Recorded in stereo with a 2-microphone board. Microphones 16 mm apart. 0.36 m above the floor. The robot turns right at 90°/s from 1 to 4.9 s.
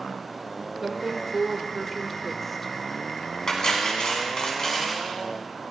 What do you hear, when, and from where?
0.8 s a woman speaking: 20° right (ahead or behind), 0.9 m; by 2.7 s 20° left (ahead or behind), 0.9 m
3.5 s cutlery clinking: 35° left, 2 m; by 5.0 s 160° left, 2 m